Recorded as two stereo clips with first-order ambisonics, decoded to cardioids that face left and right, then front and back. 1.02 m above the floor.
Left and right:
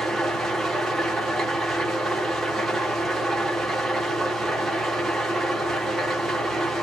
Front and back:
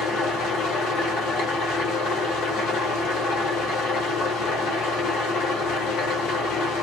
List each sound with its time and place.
0.0 s an engine running: 15° right, 1.1 m